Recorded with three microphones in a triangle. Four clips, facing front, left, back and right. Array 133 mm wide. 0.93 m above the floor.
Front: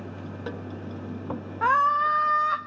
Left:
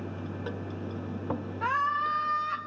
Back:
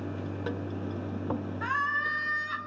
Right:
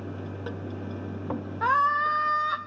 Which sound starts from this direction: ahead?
A scream, at 1.6 s.